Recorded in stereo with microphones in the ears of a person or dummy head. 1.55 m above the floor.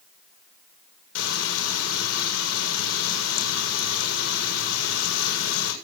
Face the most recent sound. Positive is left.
turn(degrees=85)